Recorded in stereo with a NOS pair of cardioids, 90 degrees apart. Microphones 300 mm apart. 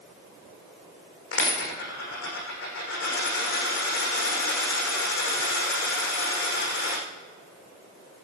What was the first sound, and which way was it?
A dropped coin, 50° left.